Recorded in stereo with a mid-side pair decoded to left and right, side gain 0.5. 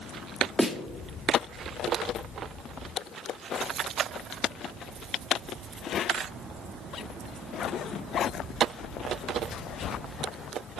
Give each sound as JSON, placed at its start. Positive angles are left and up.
{"t": 0.6, "sound": "a snare drum", "azimuth_deg": -5, "distance_m": 2.0}